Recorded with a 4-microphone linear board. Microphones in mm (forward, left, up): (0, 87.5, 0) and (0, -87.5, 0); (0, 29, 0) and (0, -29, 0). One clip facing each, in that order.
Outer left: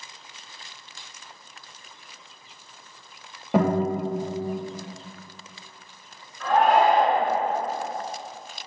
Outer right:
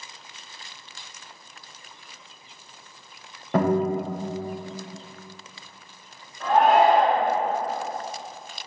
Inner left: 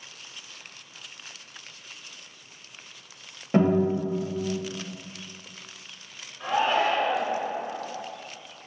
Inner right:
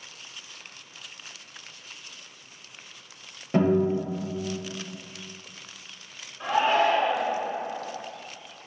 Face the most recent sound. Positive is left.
turn(degrees=-20)  # may be behind; listen again after turning